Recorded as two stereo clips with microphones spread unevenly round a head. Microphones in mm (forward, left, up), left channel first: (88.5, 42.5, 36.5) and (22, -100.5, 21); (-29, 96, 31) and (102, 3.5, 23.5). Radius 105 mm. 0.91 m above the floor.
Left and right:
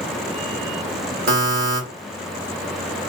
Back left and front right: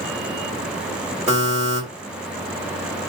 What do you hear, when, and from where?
1.3 s a buzzer: 115° right, 1.8 m